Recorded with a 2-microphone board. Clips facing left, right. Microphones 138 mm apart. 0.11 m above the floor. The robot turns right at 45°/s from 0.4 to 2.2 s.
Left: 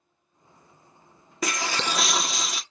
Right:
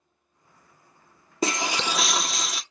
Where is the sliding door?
No sliding door in this recording.